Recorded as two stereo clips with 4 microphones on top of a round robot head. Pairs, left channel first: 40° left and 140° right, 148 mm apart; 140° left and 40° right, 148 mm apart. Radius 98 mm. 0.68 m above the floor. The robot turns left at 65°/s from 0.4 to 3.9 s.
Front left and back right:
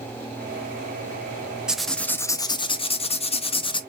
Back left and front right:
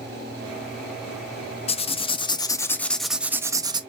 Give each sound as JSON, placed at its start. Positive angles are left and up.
{"t": 1.7, "sound": "writing", "azimuth_deg": 140, "distance_m": 0.5}